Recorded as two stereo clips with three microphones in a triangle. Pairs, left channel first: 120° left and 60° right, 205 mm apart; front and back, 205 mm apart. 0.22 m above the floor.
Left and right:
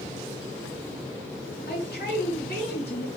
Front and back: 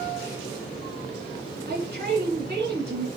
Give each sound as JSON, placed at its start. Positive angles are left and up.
{"t": 1.7, "sound": "a man speaking", "azimuth_deg": 155, "distance_m": 2.5}